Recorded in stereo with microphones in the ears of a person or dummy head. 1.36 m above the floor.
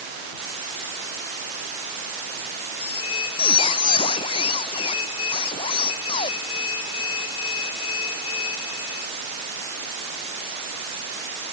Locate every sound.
2.8 s a squeak: 30° left (ahead or behind)